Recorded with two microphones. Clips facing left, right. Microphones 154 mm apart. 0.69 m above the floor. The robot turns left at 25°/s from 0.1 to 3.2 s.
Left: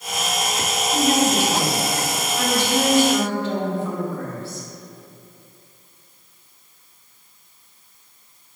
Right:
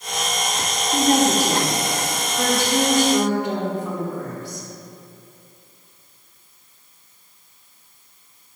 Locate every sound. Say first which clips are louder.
0.9 s a woman speaking: right 2 dB; 105° right, 0.6 m; by 4.7 s 160° right, 0.6 m